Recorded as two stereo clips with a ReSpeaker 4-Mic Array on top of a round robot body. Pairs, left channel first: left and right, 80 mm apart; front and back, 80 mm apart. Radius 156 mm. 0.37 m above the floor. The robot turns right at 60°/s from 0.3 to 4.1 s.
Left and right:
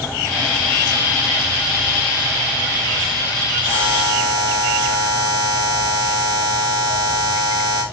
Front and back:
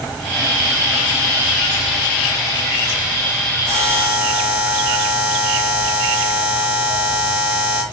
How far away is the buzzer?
About 3 m.